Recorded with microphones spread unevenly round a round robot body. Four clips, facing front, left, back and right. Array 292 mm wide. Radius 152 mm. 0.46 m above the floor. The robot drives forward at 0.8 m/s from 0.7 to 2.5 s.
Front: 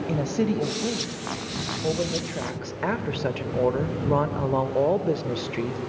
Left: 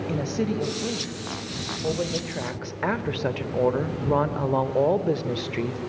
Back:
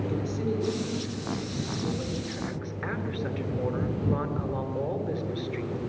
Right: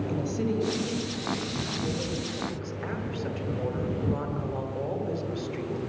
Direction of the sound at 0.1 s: 25° left.